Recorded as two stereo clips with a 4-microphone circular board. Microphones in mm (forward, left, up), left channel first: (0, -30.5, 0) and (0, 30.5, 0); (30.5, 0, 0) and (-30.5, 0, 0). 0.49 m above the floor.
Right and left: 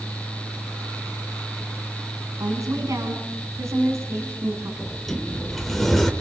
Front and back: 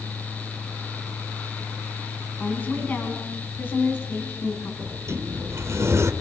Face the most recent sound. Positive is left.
turn(degrees=-175)